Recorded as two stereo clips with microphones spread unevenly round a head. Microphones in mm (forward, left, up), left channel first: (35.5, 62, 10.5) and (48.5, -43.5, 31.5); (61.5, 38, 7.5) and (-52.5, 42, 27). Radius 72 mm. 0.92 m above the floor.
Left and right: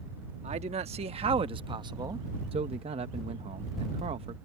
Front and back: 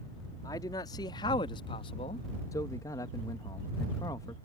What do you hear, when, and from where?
0.4 s a man speaking: 65° right; by 2.3 s 20° right
2.5 s a man speaking: 60° right